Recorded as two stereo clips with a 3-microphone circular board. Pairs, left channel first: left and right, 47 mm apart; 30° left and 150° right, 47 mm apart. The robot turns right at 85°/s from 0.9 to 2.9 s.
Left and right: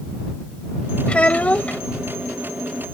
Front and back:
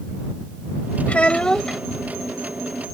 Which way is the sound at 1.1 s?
55° left.